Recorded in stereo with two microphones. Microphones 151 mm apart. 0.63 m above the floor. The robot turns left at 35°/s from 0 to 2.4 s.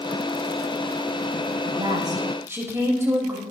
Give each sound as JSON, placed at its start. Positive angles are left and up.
{"t": 1.6, "sound": "a woman speaking", "side_deg": -45, "distance_m": 2.5}